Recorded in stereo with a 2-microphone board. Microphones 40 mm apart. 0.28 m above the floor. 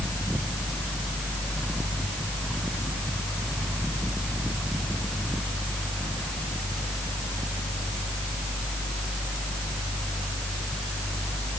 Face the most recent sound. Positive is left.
No sound to turn to.